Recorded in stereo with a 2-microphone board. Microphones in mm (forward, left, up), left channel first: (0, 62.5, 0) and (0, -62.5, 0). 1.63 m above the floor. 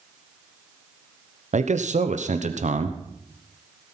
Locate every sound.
1.5 s a man speaking: 65° right (ahead or behind), 1.1 m